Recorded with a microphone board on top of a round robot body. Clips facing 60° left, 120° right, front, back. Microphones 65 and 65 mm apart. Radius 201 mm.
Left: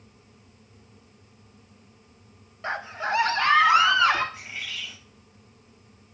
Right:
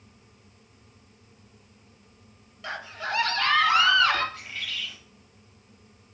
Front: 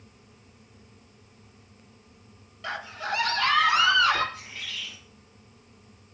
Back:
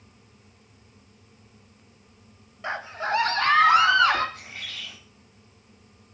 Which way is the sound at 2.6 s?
115° left.